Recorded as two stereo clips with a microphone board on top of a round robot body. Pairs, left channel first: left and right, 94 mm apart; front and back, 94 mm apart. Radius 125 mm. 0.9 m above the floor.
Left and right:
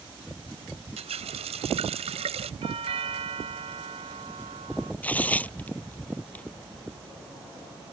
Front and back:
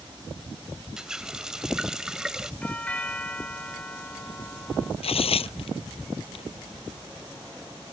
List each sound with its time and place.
1.0 s a running tap: 95° right
2.6 s a doorbell: 75° right
5.0 s tearing paper: 15° left